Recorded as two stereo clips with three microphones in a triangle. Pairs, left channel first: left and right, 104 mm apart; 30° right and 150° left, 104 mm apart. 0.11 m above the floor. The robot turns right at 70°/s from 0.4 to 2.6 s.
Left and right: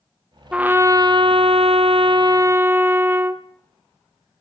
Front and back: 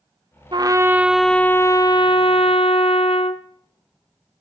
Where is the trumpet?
170° right, 0.7 m; by 3.4 s 25° right, 0.7 m.